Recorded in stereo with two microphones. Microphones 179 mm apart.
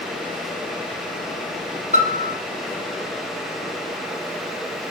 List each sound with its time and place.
1.9 s a piano: 40° right (ahead or behind), 1.7 m